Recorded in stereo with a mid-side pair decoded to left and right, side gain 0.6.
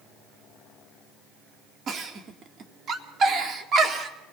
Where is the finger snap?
No finger snap in this recording.